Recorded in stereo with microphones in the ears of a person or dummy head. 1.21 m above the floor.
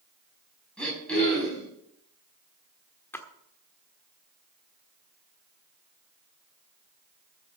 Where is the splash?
10° left (ahead or behind), 1.4 m.